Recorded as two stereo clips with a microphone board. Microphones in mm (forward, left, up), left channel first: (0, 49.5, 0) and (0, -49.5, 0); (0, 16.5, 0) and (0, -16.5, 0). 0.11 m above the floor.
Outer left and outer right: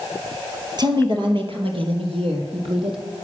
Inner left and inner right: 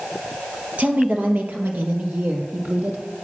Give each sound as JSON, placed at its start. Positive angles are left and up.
{"t": 0.8, "sound": "a woman speaking", "side_deg": -45, "distance_m": 3.0}